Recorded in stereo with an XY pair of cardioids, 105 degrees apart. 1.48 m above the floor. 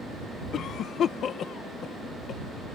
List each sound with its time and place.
0.5 s a cough: 65° left